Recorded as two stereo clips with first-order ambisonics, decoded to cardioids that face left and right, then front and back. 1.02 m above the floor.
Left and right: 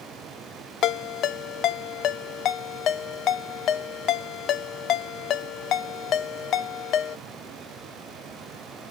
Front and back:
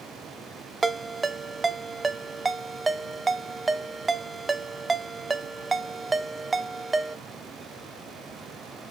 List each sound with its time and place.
0.8 s a ringtone: 105° left, 0.6 m